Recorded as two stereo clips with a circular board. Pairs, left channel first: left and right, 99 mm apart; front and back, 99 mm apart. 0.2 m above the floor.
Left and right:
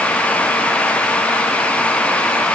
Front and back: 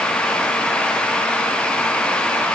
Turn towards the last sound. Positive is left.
No sound to turn to.